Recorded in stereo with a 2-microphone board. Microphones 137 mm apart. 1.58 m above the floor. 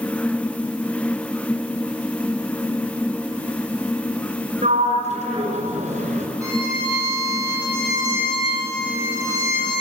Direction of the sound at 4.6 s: 55° right (ahead or behind).